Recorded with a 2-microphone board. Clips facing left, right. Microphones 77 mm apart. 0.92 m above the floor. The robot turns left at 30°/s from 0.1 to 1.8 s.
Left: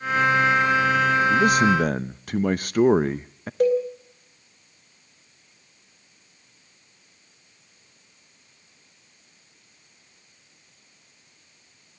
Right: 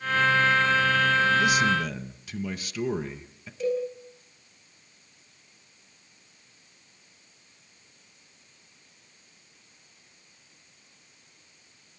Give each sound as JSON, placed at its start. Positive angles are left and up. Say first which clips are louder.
{"t": 1.3, "sound": "a man speaking", "louder": "left 4 dB", "side_deg": 50, "distance_m": 0.5}
{"t": 3.6, "sound": "a cowbell", "louder": "left 7 dB", "side_deg": 60, "distance_m": 4.5}